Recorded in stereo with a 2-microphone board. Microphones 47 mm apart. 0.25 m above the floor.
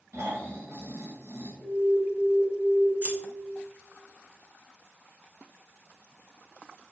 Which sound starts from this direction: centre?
An alarm, at 1.6 s.